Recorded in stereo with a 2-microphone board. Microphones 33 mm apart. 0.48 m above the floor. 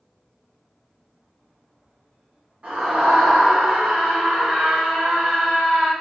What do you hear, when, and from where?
2.6 s a scream: 45° right (ahead or behind), 1.4 m